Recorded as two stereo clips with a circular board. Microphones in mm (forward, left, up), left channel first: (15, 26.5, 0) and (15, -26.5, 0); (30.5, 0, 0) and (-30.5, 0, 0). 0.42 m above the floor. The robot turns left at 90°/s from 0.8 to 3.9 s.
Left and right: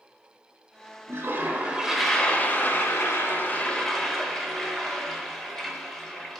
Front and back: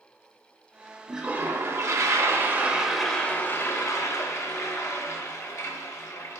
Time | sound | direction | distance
1.1 | a toilet flushing | 100° right | 0.9 m